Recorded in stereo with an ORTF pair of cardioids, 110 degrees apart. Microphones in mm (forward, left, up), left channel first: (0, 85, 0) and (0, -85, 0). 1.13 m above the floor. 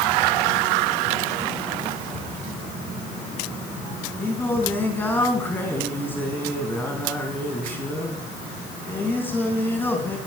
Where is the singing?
10° left, 3.5 m.